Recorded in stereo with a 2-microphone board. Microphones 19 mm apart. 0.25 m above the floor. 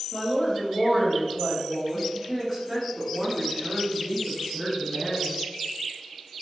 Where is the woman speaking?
20° left (ahead or behind), 1.4 m; by 5.4 s 40° right (ahead or behind), 2.5 m.